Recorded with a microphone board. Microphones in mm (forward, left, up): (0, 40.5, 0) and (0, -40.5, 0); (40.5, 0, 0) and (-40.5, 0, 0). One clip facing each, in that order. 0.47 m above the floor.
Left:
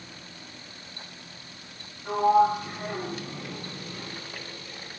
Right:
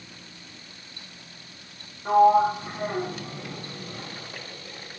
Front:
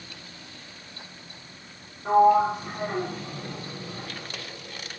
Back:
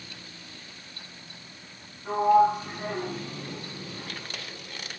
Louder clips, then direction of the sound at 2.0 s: Right 3 dB, front 2 dB; 35° right.